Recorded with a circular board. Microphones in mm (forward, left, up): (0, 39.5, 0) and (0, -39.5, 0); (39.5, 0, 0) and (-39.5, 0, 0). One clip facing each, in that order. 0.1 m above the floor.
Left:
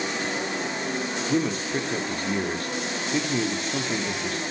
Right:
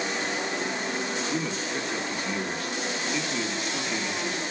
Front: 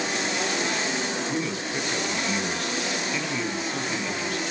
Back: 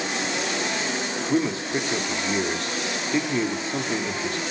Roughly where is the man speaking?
Behind left.